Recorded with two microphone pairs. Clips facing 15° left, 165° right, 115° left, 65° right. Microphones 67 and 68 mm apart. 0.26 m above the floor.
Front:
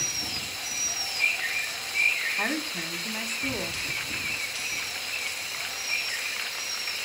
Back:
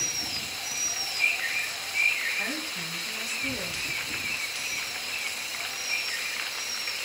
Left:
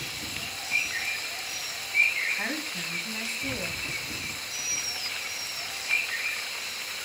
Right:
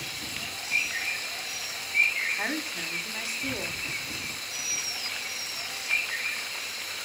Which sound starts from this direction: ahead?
A woman speaking, at 2.4 s.